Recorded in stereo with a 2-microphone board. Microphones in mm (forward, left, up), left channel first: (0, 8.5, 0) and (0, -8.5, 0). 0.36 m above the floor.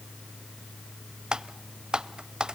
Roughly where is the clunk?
No clunk in this recording.